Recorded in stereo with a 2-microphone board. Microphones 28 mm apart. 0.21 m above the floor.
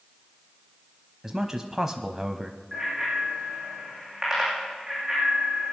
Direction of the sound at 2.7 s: 10° right (ahead or behind).